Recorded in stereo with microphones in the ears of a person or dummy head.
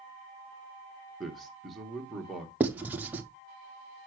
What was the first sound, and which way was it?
A man speaking, centre (ahead or behind).